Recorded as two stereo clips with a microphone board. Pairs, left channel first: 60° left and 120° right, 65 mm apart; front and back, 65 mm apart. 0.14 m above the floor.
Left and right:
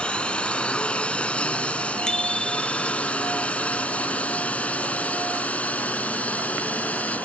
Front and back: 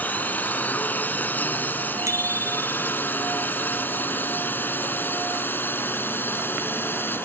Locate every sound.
0.0 s a drone: 10° left; by 7.3 s 15° left
2.1 s a bicycle bell: 140° left